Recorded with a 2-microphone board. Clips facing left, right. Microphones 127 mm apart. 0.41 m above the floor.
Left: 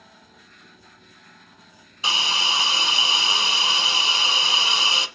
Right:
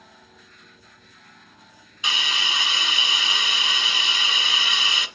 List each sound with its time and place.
2.0 s a hiss: 35° left (ahead or behind), 0.7 m